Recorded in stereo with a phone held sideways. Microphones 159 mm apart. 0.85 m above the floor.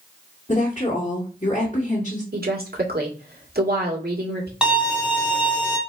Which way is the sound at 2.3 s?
80° right.